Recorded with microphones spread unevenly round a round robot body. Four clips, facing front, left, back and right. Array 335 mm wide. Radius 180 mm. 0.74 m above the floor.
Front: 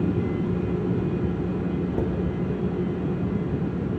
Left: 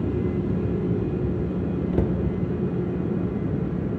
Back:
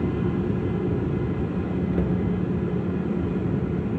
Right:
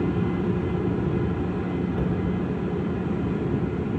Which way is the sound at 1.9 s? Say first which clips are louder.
Left 2 dB, back 1 dB; 75° left.